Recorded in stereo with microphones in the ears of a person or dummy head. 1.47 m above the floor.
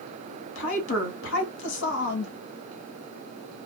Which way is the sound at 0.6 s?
70° left (ahead or behind).